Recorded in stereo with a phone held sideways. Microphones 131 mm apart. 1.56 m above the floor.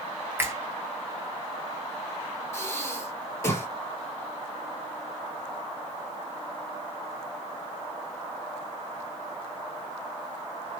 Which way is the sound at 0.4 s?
15° right (ahead or behind).